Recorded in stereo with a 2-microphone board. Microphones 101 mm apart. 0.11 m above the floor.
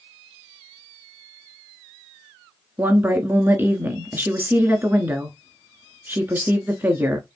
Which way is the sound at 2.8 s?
20° right (ahead or behind).